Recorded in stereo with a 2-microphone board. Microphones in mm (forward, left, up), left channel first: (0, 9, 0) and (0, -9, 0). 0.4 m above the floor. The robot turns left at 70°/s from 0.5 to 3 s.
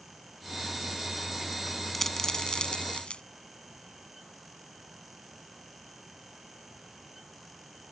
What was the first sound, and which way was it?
A dropped coin, 15° left (ahead or behind).